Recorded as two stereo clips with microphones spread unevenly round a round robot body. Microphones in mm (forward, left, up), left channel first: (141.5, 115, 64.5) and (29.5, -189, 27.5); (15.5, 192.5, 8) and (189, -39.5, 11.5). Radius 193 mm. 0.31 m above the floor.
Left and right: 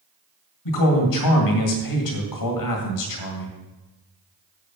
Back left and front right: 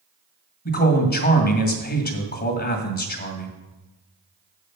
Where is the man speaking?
80° left, 2.0 m.